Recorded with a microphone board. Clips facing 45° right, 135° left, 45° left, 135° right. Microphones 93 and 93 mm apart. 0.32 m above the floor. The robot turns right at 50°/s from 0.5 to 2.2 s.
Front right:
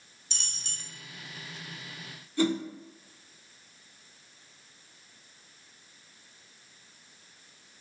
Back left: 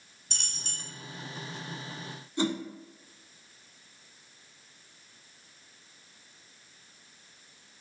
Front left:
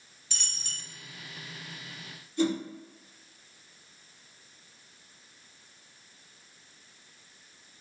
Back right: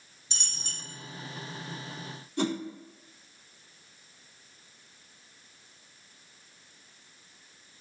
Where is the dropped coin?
165° left, 0.7 m; by 0.8 s straight behind, 0.7 m.